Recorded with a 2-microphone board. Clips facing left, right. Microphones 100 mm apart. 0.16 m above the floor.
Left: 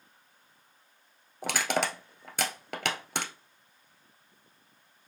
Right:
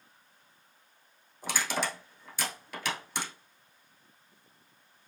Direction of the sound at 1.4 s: 70° left (ahead or behind).